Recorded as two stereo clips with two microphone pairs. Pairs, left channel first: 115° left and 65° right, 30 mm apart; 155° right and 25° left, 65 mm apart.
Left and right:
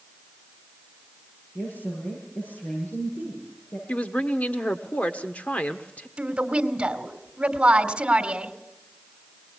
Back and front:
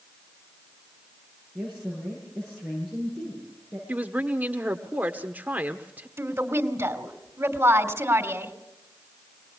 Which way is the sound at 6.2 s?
10° right.